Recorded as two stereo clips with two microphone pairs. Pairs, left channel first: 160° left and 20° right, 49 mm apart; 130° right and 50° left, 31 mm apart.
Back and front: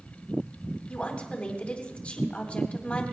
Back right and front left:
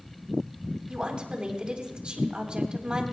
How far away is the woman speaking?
About 2.5 m.